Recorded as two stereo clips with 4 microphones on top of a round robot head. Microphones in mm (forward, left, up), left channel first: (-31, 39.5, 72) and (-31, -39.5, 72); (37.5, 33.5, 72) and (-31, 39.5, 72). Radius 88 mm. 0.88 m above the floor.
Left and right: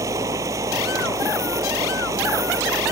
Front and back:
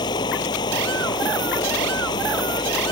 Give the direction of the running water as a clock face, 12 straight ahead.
1 o'clock.